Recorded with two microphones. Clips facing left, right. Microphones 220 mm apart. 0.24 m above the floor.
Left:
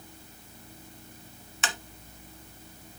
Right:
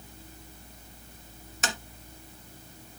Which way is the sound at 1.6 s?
40° right (ahead or behind).